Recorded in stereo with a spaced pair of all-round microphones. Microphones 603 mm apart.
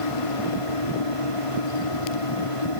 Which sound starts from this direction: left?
A fan, at 0.0 s.